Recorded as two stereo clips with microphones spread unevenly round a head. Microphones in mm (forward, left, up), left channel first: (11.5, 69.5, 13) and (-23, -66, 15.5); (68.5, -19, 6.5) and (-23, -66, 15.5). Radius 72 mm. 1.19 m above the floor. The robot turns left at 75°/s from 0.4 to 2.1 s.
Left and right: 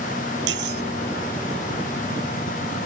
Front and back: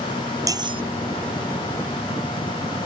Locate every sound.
0.5 s cutlery clinking: 95° right; by 0.8 s 120° right